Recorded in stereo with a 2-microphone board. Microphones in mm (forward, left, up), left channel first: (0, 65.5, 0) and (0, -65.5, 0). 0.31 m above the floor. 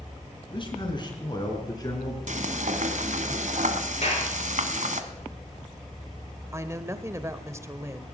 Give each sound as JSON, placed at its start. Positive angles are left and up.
{"t": 0.5, "sound": "a man speaking", "side_deg": 40, "distance_m": 3.5}
{"t": 2.3, "sound": "frying", "side_deg": -70, "distance_m": 1.2}
{"t": 4.0, "sound": "a clap", "side_deg": 55, "distance_m": 4.5}
{"t": 6.5, "sound": "a woman speaking", "side_deg": -20, "distance_m": 0.9}